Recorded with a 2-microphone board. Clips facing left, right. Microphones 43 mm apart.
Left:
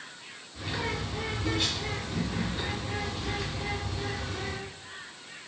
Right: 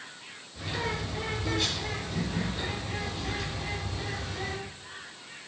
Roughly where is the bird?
Centre.